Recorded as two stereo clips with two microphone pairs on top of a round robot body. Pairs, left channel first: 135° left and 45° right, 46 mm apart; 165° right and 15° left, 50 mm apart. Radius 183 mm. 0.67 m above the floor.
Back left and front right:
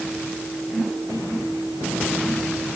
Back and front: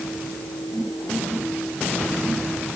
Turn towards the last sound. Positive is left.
No sound to turn to.